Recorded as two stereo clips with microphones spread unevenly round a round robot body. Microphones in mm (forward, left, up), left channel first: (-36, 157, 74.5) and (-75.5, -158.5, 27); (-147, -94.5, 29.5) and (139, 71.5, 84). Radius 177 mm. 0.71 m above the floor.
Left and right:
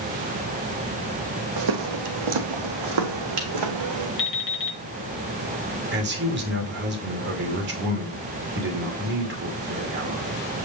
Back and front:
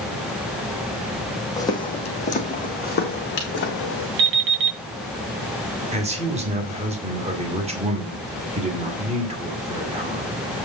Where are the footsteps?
65° right, 1.6 m; by 4.1 s 95° right, 2.5 m.